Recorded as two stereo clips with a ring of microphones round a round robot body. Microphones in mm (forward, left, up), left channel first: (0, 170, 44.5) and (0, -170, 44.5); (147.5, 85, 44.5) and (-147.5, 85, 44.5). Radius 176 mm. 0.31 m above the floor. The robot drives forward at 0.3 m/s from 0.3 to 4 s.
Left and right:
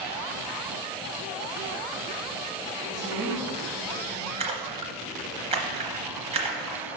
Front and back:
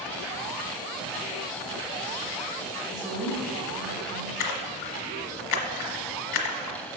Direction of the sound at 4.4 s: 15° right.